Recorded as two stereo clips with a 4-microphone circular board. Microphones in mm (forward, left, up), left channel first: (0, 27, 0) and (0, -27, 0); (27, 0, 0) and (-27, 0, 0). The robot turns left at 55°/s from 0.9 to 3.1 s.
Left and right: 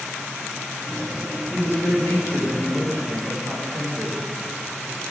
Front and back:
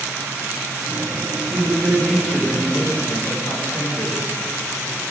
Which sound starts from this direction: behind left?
A man speaking, at 1.5 s.